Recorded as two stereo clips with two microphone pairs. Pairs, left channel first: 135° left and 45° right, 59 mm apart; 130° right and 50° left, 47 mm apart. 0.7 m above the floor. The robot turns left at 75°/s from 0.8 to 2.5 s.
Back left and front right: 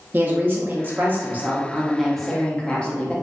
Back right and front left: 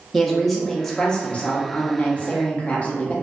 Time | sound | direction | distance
0.1 | a woman speaking | 40° right | 0.6 m